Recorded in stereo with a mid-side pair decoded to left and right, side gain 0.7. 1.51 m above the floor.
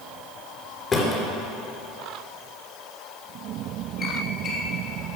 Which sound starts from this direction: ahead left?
A drawer, at 0.9 s.